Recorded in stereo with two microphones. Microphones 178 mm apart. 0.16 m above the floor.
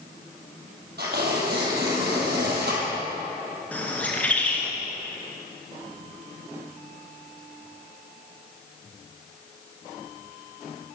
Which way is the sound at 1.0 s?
70° right (ahead or behind).